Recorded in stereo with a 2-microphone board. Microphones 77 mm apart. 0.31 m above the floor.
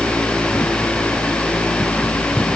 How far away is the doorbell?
I don't hear a doorbell.